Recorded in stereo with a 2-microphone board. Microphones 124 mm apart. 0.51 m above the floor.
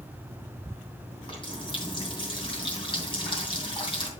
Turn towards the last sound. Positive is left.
turn(degrees=40)  # may be behind; listen again after turning